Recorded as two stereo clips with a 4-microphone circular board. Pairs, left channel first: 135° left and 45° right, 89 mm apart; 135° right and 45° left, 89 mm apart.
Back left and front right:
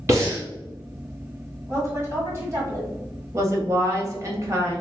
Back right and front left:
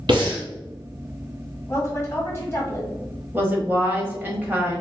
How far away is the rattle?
I don't hear a rattle.